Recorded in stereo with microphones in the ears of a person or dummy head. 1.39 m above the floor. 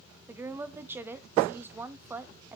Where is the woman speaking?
15° right (ahead or behind), 0.6 m.